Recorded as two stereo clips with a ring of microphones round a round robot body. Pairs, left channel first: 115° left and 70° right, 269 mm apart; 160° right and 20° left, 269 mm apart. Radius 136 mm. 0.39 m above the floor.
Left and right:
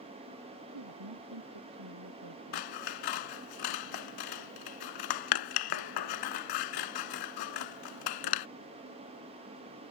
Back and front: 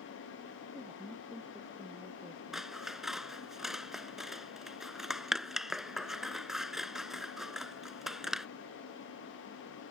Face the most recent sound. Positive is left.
turn(degrees=110)